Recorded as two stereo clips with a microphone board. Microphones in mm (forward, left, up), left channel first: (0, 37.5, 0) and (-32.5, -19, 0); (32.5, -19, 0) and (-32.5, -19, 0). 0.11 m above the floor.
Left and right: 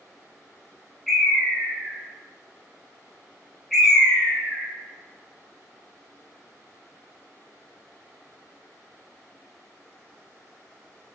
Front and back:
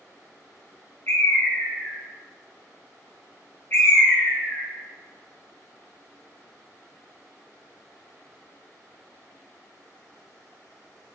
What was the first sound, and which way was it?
A bird, 30° right.